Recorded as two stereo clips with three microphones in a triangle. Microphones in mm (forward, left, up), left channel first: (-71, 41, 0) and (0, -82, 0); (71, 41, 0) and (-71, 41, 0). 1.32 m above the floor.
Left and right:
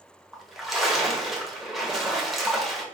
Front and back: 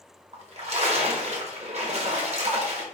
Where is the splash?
150° right, 0.7 m.